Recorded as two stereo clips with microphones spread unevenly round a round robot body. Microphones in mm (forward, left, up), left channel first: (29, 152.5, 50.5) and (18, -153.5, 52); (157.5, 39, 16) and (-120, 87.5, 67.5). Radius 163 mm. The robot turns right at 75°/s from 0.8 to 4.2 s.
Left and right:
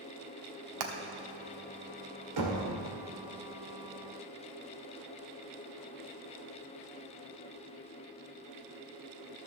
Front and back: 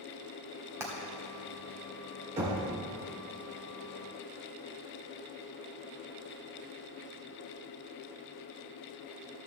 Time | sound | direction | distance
0.8 | hammering | 105° right | 1.2 m
2.4 | knocking | 120° right | 2 m